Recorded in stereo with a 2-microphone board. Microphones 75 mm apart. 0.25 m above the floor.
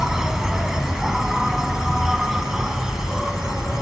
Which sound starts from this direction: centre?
An insect, at 0.0 s.